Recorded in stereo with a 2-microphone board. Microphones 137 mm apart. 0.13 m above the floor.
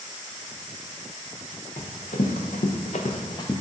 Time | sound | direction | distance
1.8 | running footsteps | 65° left (ahead or behind) | 1.0 m